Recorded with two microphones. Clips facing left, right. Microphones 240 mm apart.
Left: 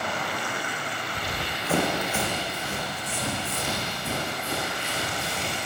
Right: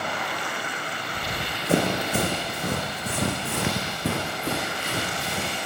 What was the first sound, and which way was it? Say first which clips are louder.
Running footsteps: right 1 dB; 15° right (ahead or behind).